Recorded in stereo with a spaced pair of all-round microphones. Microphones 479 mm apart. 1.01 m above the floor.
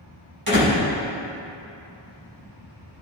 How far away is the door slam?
About 3 m.